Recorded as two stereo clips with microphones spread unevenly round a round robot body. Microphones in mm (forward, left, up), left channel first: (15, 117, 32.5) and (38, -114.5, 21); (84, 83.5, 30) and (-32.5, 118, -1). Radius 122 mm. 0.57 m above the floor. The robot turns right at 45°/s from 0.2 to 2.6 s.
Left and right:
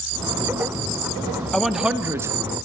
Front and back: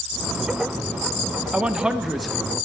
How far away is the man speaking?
About 0.6 m.